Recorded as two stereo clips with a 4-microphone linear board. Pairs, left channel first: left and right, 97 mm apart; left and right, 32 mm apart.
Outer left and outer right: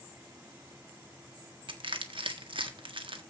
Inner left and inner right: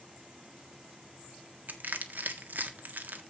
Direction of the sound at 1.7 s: 60° right (ahead or behind).